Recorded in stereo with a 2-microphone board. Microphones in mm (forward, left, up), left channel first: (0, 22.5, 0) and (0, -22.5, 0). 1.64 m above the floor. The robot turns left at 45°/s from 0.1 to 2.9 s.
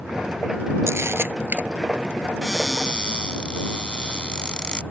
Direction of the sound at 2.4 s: 5° right (ahead or behind).